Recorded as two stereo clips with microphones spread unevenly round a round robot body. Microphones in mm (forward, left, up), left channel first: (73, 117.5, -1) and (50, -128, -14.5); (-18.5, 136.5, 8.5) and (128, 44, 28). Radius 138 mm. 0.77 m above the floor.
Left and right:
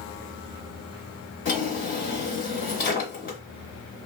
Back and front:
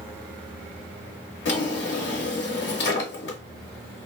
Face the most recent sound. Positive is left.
turn(degrees=140)